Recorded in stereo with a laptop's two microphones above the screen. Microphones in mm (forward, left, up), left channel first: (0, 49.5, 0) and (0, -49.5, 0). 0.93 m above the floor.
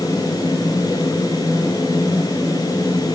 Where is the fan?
40° left (ahead or behind), 7.5 m.